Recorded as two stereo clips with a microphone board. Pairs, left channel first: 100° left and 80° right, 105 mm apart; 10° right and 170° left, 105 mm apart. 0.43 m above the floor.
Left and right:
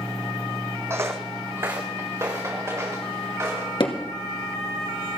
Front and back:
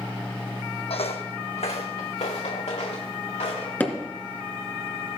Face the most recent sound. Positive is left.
turn(degrees=60)